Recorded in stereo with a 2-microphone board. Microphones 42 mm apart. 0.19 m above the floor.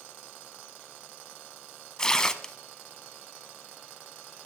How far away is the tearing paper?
About 0.6 m.